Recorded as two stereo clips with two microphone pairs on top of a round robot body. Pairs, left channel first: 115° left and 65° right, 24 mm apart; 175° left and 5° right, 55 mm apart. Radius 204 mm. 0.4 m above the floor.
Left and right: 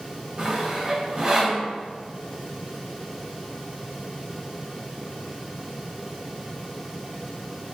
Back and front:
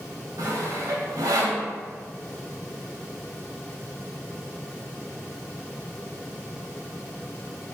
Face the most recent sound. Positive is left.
turn(degrees=-10)